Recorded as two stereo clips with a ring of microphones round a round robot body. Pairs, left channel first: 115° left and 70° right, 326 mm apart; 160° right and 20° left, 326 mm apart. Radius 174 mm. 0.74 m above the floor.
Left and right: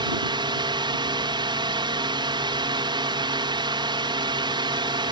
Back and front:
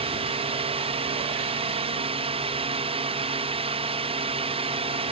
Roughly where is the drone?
Ahead.